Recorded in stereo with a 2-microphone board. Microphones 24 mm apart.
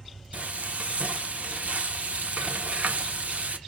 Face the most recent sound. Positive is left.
turn(degrees=-75)  # may be behind; listen again after turning